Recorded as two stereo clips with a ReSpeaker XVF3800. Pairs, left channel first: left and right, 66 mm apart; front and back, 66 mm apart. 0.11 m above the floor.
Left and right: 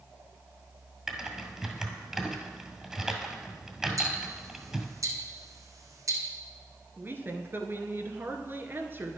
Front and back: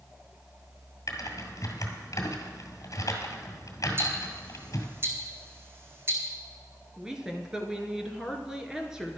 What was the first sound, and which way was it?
Typing on a keyboard, 5° right.